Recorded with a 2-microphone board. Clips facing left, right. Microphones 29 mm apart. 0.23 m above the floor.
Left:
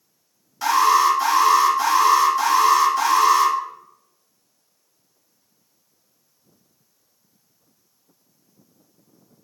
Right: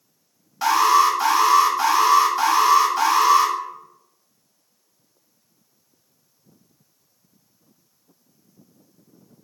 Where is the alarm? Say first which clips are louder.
Even; 15° right (ahead or behind), 1.2 m.